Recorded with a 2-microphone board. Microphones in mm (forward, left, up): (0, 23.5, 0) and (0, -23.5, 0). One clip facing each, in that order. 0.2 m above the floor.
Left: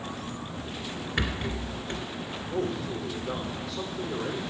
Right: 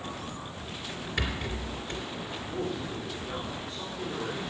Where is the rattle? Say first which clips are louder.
Left 2 dB; 25° left (ahead or behind), 2 m.